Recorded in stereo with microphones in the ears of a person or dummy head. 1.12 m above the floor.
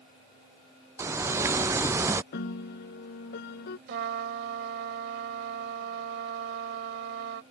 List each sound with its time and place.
1.0 s a bird: 10° right (ahead or behind)
2.3 s a piano: 65° left (ahead or behind)
3.9 s a trumpet: 60° right (ahead or behind)